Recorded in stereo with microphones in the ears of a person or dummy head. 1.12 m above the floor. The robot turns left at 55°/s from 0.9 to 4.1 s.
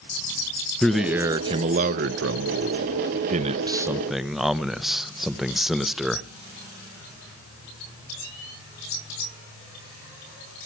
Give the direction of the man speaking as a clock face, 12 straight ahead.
12 o'clock.